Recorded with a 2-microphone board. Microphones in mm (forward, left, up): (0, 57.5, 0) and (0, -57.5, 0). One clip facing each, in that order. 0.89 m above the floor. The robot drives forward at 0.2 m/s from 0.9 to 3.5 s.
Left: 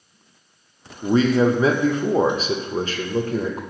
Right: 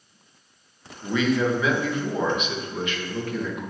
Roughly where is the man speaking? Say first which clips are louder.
Left 6 dB; left.